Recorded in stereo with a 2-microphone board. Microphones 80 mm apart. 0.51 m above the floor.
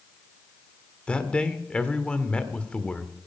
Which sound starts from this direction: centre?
A man speaking, at 1.1 s.